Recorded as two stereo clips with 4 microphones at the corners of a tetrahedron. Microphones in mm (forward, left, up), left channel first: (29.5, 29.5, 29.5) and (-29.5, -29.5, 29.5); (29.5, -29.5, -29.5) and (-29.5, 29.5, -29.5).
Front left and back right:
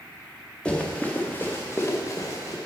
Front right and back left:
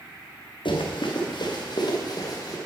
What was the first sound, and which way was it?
Running footsteps, 35° right.